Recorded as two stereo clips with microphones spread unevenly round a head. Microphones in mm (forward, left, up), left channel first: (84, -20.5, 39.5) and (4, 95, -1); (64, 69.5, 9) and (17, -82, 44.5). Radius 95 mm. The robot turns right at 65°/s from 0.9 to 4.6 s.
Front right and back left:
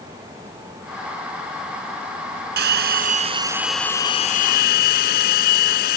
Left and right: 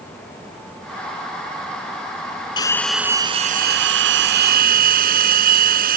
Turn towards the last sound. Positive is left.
turn(degrees=-85)